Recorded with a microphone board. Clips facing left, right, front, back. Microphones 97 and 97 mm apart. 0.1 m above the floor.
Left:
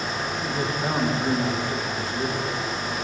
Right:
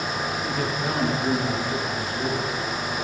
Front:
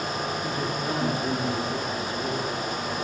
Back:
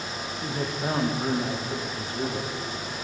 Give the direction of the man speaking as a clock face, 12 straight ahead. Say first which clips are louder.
Even, front 1 dB; 7 o'clock.